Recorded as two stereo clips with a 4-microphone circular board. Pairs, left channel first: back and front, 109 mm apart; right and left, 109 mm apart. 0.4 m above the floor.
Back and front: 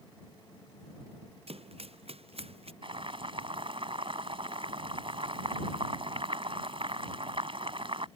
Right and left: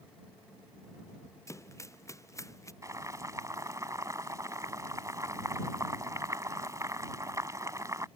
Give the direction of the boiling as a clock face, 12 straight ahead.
11 o'clock.